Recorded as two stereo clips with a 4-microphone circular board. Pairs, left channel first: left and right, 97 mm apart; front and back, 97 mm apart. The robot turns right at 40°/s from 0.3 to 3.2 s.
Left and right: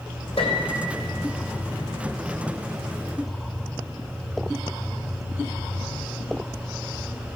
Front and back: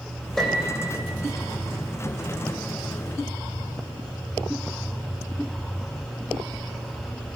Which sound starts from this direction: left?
A piano, at 0.4 s.